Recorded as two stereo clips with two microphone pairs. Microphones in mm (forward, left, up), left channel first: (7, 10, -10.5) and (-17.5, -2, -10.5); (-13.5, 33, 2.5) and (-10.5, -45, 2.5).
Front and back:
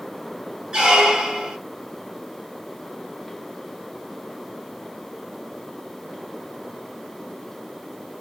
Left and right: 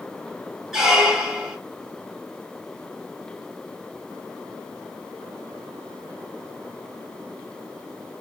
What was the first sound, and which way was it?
A squeak, 170° right.